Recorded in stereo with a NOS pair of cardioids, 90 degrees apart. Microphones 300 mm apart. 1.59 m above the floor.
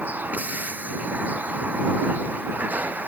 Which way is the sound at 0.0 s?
5° right.